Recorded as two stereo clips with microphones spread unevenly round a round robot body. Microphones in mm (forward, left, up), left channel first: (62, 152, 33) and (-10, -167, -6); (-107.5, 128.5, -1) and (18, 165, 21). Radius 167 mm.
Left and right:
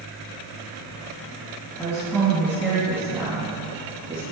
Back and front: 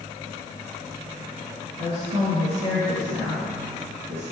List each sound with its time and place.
1.8 s a woman speaking: 5° right, 4 m; by 4.2 s 30° right, 4 m